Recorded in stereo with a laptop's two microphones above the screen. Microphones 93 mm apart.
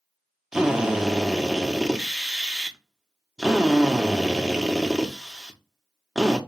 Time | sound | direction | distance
0.5 | a drill | 5° right (ahead or behind) | 0.9 m